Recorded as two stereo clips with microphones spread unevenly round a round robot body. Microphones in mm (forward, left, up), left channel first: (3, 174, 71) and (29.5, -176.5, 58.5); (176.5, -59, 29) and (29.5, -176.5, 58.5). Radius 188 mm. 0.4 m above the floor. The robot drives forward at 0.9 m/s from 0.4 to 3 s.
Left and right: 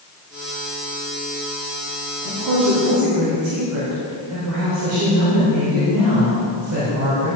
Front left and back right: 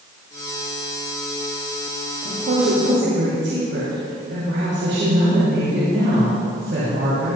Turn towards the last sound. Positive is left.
turn(degrees=-130)